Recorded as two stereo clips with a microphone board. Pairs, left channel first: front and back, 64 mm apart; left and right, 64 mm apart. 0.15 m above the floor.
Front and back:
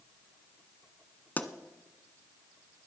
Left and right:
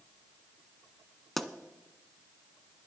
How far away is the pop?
About 0.6 m.